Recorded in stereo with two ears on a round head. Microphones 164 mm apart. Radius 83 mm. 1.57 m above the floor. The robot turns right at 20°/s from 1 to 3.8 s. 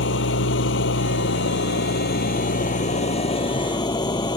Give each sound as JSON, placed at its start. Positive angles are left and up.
{"t": 0.0, "sound": "an engine running", "azimuth_deg": 100}